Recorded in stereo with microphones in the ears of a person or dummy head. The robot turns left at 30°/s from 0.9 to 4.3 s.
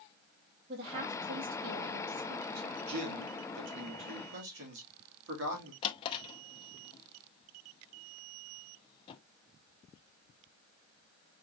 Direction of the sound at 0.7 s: 35° right.